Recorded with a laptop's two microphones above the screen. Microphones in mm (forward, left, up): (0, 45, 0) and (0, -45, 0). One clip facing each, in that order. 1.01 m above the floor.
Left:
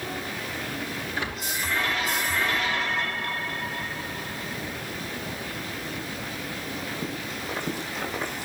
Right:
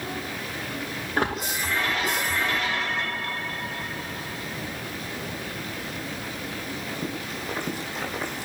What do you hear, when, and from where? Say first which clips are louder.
1.2 s a splash: right 8 dB; 50° right (ahead or behind), 2 m